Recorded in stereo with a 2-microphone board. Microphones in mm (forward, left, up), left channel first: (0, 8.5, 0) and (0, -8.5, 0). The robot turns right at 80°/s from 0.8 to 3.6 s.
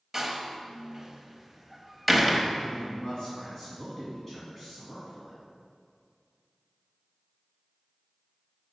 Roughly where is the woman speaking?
Left.